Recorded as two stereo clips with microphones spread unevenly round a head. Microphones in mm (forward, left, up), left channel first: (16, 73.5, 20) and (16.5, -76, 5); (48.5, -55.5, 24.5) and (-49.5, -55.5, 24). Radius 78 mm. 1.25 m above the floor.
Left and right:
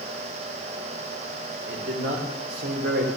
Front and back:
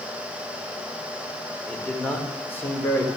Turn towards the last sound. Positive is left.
turn(degrees=-60)